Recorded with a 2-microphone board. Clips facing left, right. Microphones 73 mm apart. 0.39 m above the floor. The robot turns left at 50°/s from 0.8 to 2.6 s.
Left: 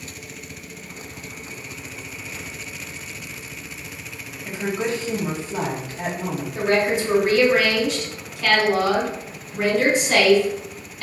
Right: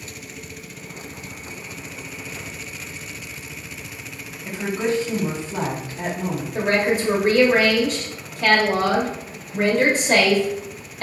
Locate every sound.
4.5 s a woman speaking: 25° right (ahead or behind), 1.4 m
6.5 s a woman speaking: 40° right (ahead or behind), 1.1 m